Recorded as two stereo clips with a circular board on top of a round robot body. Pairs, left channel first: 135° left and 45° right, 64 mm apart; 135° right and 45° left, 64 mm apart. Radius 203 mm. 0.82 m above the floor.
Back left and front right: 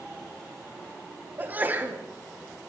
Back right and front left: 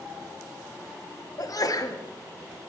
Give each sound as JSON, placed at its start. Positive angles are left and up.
{"t": 1.4, "sound": "a sneeze", "azimuth_deg": -110, "distance_m": 2.5}